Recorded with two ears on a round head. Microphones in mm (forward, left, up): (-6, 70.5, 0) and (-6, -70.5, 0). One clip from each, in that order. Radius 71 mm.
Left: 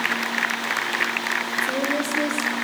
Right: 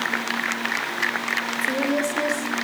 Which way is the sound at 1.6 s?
10° right (ahead or behind).